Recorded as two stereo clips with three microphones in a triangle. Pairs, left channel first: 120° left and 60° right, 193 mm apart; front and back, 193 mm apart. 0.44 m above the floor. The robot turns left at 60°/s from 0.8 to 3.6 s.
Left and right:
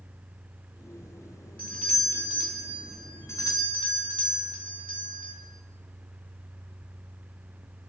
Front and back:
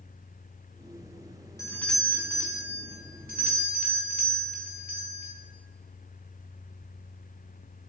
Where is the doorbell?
65° right, 2.5 m; by 5.3 s 170° left, 2.5 m.